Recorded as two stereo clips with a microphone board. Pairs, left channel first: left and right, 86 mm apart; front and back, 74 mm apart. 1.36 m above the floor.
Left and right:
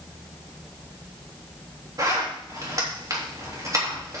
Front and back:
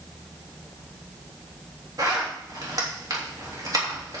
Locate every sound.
2.0 s a zipper: 140° right, 3.5 m